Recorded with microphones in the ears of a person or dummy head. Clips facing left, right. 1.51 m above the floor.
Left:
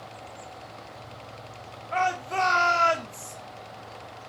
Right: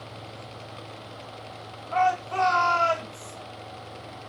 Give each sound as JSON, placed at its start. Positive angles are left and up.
{"t": 1.9, "sound": "a shout", "side_deg": 25, "distance_m": 2.5}